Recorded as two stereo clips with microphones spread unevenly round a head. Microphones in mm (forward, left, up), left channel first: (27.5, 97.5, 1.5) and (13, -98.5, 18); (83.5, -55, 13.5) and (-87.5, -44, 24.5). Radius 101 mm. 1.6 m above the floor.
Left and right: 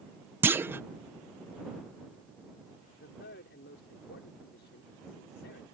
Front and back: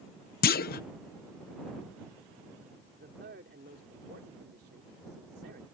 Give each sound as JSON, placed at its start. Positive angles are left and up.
{"t": 0.4, "sound": "a clunk", "azimuth_deg": -20}
{"t": 3.0, "sound": "a man speaking", "azimuth_deg": 130}